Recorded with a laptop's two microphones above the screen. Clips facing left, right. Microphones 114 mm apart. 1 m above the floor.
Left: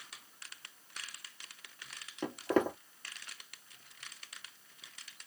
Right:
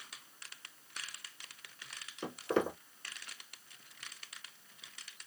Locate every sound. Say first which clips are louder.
2.2 s footsteps: left 2 dB; 45° left (ahead or behind), 1.5 m